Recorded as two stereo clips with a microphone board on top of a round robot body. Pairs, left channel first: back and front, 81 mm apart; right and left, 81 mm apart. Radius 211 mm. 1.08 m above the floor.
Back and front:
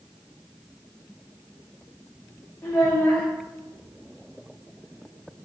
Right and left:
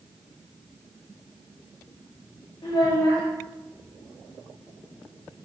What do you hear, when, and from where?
2.6 s a child speaking: 115° right, 0.7 m